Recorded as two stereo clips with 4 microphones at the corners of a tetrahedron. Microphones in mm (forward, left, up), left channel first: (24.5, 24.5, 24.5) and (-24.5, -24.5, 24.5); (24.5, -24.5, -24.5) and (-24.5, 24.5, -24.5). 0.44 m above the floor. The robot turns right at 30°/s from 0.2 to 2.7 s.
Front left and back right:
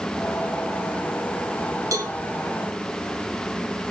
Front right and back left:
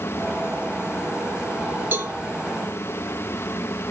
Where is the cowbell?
165° right, 2.5 m; by 2.1 s 160° right, 2.5 m.